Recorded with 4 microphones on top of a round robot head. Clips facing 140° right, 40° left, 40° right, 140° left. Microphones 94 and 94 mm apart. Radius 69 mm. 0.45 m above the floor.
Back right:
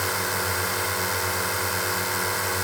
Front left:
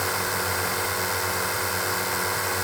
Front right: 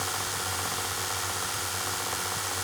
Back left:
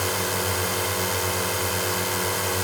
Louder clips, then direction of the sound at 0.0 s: Even, back left 7 dB; 130° left.